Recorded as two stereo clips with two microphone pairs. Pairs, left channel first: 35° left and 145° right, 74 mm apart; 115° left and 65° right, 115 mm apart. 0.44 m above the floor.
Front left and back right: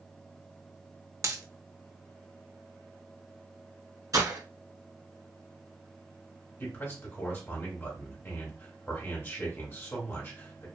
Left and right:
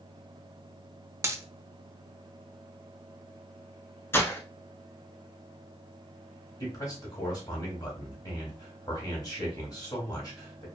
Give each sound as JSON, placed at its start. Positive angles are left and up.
{"t": 1.2, "sound": "a dropped coin", "azimuth_deg": -120, "distance_m": 0.5}
{"t": 4.1, "sound": "breaking glass", "azimuth_deg": -175, "distance_m": 0.9}
{"t": 6.6, "sound": "a man speaking", "azimuth_deg": 80, "distance_m": 1.5}